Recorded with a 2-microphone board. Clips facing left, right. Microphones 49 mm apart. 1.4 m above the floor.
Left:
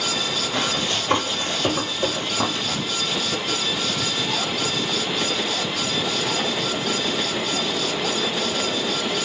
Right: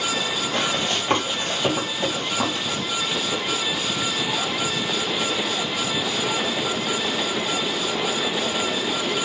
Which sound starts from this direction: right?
Running footsteps, at 0.5 s.